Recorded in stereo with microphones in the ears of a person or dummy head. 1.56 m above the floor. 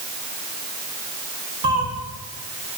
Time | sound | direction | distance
1.6 | a cat meowing | 40° right (ahead or behind) | 2.5 m